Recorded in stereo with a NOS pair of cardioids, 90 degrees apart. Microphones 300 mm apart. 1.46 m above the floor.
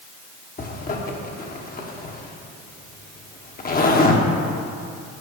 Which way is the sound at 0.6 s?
30° left.